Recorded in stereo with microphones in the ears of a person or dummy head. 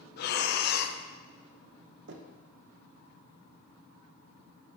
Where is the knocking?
60° right (ahead or behind), 0.8 m.